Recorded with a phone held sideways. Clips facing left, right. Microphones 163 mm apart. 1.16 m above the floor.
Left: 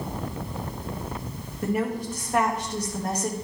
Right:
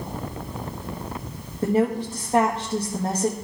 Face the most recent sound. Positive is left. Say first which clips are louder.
# right 5 dB
turn(degrees=-25)  # may be behind; listen again after turning